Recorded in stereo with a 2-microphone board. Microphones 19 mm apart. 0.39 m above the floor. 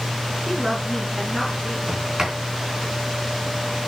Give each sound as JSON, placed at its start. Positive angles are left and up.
{"t": 0.5, "sound": "a woman speaking", "side_deg": -15, "distance_m": 4.5}
{"t": 1.9, "sound": "a sliding door", "side_deg": -35, "distance_m": 4.0}